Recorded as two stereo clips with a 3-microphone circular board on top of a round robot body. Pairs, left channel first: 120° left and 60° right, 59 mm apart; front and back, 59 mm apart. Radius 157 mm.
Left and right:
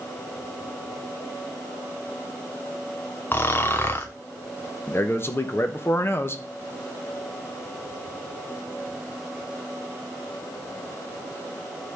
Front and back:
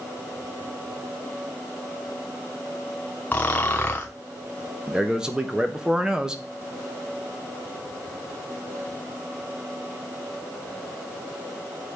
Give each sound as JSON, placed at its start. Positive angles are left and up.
{"t": 3.3, "sound": "snoring", "azimuth_deg": 65, "distance_m": 0.5}
{"t": 4.9, "sound": "a man speaking", "azimuth_deg": 110, "distance_m": 1.3}